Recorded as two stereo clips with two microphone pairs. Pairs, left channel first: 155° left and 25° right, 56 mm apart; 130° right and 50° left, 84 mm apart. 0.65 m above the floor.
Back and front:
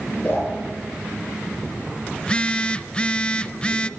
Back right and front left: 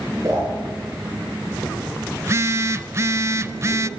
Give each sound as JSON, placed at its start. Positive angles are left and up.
{"t": 0.2, "sound": "a whoosh", "azimuth_deg": 100, "distance_m": 9.5}
{"t": 2.2, "sound": "a phone buzzing", "azimuth_deg": 95, "distance_m": 0.5}